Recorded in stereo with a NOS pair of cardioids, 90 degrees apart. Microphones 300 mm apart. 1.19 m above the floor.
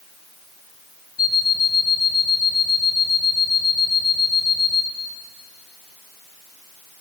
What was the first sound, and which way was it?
An alarm clock, 15° left.